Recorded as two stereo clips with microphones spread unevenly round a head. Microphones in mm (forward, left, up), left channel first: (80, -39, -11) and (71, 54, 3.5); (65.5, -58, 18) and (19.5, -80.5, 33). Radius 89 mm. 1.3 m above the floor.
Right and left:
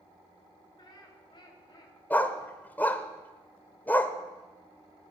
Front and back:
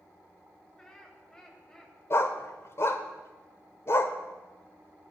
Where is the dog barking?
10° right, 1.5 m.